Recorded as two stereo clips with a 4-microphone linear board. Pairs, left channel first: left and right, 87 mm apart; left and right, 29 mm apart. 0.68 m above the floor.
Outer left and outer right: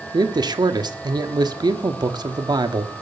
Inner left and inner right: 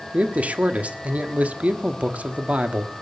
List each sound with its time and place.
0.1 s a man speaking: 50° right (ahead or behind), 1.5 m